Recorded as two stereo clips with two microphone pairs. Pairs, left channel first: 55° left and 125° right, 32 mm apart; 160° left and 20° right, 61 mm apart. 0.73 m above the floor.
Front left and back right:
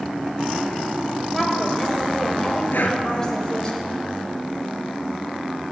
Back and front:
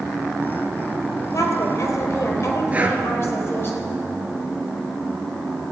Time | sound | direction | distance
1.3 | a woman speaking | 140° left | 3.5 m
2.7 | breathing | 45° left | 1.8 m